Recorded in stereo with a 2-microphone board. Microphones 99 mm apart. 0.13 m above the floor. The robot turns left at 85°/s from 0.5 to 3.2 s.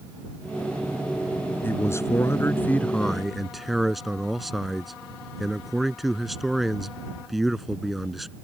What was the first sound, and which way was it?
A man speaking, 25° left (ahead or behind).